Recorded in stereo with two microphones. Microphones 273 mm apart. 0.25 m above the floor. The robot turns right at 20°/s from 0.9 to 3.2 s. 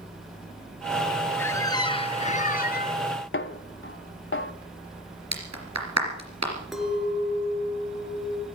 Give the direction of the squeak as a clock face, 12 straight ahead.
12 o'clock.